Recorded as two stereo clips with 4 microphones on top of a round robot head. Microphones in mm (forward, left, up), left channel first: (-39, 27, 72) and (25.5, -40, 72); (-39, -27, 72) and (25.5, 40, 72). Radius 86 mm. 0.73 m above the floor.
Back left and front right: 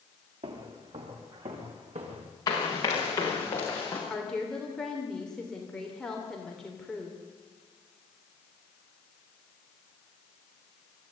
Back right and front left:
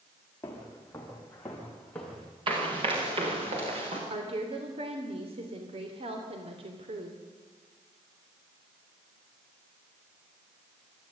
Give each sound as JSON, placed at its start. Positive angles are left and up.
{"t": 0.4, "sound": "footsteps", "azimuth_deg": -65, "distance_m": 4.5}
{"t": 2.5, "sound": "running footsteps", "azimuth_deg": 80, "distance_m": 6.0}
{"t": 4.1, "sound": "a woman speaking", "azimuth_deg": 50, "distance_m": 3.0}